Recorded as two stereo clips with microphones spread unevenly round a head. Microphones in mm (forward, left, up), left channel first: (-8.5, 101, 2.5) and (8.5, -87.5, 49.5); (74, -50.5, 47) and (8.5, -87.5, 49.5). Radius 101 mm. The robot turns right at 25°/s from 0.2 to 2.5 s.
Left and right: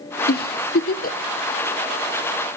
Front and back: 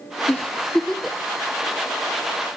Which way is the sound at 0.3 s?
100° left.